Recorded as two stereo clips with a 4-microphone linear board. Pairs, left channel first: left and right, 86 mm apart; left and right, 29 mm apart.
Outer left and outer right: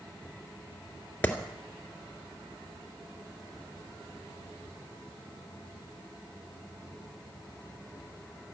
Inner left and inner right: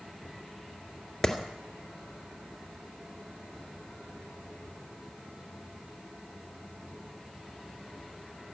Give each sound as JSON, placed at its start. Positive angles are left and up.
{"t": 1.2, "sound": "a clap", "side_deg": 20, "distance_m": 2.0}